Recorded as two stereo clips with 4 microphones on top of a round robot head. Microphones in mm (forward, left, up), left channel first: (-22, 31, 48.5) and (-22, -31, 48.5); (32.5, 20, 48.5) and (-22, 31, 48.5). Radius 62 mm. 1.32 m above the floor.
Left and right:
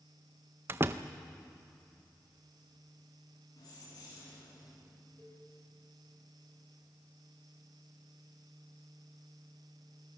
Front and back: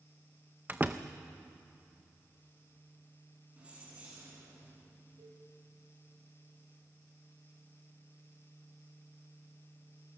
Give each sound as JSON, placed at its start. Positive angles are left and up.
{"t": 0.7, "sound": "a door slam", "azimuth_deg": -125, "distance_m": 0.5}
{"t": 3.6, "sound": "keys jangling", "azimuth_deg": 100, "distance_m": 9.0}
{"t": 5.2, "sound": "a cowbell", "azimuth_deg": 155, "distance_m": 9.5}